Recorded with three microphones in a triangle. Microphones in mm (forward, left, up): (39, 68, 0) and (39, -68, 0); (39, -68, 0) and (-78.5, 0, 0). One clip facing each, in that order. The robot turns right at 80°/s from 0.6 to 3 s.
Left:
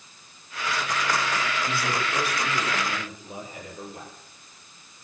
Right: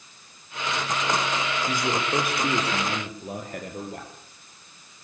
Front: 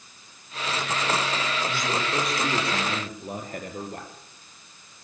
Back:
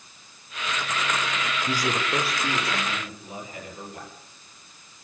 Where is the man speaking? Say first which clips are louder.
Right 2 dB, back 1 dB; 170° right, 6 m; by 4.1 s 65° right, 6 m.